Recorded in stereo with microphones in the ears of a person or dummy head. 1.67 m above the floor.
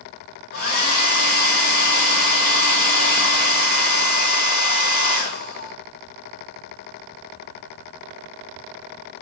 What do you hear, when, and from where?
0.5 s a hair dryer: 55° left (ahead or behind), 1.4 m